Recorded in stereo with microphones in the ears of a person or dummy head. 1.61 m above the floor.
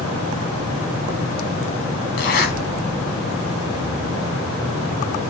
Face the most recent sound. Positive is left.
turn(degrees=55)  # may be behind; listen again after turning